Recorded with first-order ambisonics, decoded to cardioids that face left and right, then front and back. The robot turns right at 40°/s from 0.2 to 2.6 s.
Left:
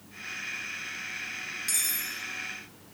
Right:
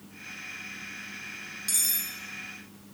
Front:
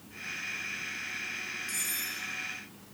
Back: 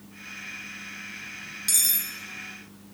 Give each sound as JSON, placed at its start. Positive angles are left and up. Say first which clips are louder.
{"t": 1.7, "sound": "cutlery clinking", "louder": "right 2 dB, back 12 dB", "azimuth_deg": -175, "distance_m": 0.9}